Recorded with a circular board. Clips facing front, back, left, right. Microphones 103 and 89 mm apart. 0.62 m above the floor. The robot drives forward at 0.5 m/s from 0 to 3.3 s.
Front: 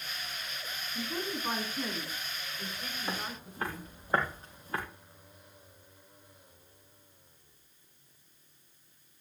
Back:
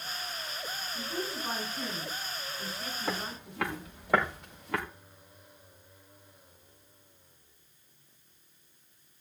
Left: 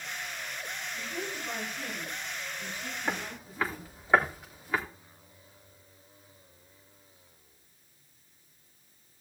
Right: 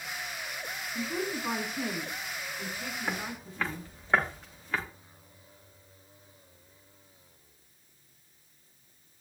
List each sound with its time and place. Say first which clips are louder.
0.9 s a woman speaking: front 1 dB, right 7 dB; 80° right, 8 m; by 3.9 s 90° right, 7.5 m
3.1 s footsteps: back 3 dB, left 3 dB; 175° left, 7 m; by 4.8 s 170° left, 6.5 m